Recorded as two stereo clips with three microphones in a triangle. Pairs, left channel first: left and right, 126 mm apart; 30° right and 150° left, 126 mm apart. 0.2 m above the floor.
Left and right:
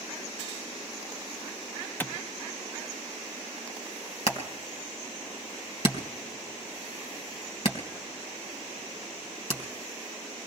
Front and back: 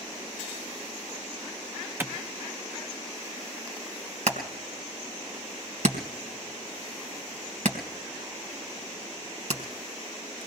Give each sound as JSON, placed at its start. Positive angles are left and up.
{"t": 2.0, "sound": "a clap", "azimuth_deg": 125, "distance_m": 0.9}
{"t": 4.3, "sound": "hammering", "azimuth_deg": 135, "distance_m": 3.0}